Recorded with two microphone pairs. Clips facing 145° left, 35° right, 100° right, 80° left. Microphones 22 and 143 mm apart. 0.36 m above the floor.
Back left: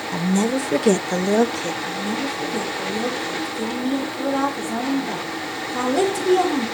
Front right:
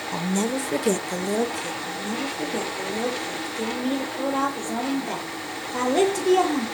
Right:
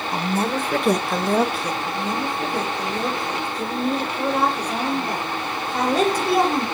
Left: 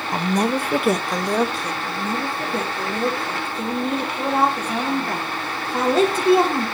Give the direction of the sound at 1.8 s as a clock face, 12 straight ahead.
11 o'clock.